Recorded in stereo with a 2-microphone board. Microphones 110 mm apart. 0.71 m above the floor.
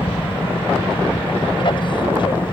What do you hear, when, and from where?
0.0 s an aircraft: 50° left (ahead or behind); by 2.5 s 45° left (ahead or behind)